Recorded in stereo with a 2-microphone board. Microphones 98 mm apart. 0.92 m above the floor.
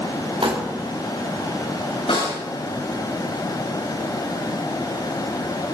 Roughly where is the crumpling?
Right.